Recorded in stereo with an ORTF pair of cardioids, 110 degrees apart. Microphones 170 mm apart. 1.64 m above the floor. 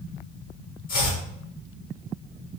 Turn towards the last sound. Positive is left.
turn(degrees=55)